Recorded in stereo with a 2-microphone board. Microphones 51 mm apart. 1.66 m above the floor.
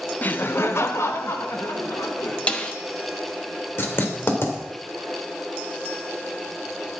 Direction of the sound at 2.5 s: 25° left (ahead or behind).